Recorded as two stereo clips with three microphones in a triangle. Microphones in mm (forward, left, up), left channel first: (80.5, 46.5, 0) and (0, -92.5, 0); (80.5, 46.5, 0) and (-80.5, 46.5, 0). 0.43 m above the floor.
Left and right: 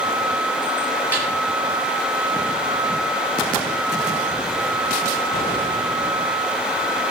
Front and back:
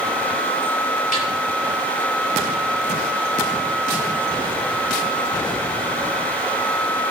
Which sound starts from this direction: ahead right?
A snare drum, at 1.1 s.